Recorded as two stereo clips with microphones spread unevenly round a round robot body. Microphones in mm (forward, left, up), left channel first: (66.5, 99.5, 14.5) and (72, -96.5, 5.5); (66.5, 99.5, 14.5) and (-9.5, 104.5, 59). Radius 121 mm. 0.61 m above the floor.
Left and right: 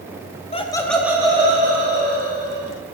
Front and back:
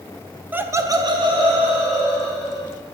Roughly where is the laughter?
Left.